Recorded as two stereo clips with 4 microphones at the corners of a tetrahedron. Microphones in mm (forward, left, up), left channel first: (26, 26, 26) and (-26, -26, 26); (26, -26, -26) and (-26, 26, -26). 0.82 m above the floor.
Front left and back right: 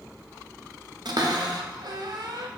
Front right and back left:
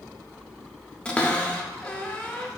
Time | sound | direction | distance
1.1 | a cupboard door | 120° right | 0.5 m